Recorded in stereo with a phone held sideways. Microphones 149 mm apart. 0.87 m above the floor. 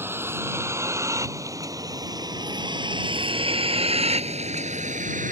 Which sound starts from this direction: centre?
A vehicle, at 0.0 s.